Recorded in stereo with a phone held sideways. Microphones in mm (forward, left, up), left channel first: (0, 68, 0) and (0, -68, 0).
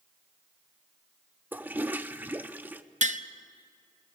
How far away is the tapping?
About 0.7 m.